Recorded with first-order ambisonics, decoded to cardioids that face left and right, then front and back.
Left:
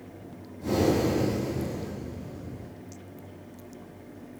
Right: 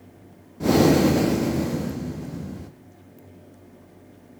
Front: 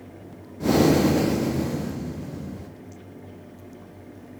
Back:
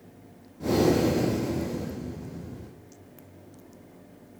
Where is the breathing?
60° right, 1.0 m.